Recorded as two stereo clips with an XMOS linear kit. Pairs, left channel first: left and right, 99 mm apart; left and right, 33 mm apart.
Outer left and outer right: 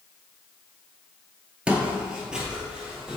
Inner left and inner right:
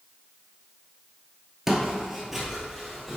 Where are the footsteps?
10° right (ahead or behind), 1.0 m; by 3.2 s 5° right (ahead or behind), 1.8 m.